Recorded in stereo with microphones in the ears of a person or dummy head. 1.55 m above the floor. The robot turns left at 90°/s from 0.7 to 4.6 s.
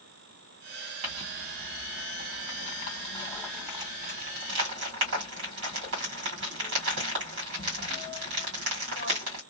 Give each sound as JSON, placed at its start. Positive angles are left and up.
{"t": 1.0, "sound": "crumpling", "side_deg": -35, "distance_m": 1.8}